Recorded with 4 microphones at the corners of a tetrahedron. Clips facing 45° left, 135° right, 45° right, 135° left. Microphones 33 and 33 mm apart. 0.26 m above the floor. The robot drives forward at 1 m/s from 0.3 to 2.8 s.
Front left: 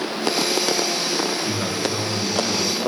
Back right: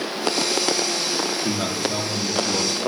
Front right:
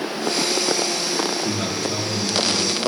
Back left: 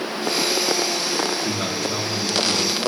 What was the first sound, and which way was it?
A man speaking, 125° right.